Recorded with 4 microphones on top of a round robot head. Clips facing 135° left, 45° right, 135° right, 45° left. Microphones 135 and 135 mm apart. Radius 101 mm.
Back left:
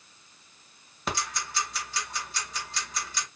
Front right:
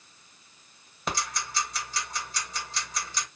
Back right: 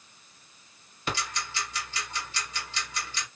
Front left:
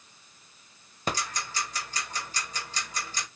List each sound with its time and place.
1.1 s ticking: 50° left, 1.6 m